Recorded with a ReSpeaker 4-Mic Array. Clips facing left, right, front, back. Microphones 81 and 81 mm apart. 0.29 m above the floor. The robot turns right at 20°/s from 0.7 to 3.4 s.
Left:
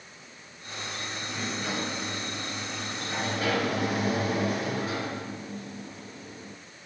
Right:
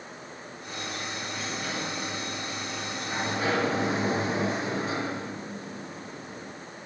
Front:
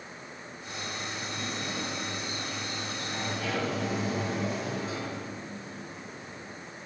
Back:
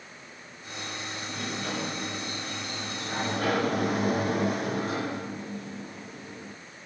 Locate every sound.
1.3 s a sliding door: 165° left, 4.5 m; by 6.5 s 155° right, 4.5 m